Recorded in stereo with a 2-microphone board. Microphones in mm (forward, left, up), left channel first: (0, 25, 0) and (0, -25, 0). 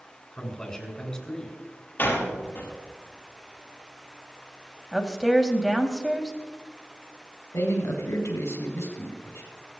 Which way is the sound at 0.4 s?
15° left (ahead or behind).